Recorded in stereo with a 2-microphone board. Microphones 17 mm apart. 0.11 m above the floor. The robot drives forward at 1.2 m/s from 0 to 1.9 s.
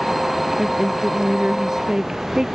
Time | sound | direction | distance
0.6 | a woman speaking | 30° right (ahead or behind) | ?